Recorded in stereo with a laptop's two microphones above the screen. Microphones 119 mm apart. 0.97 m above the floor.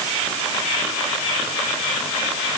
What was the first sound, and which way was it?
Only background noise.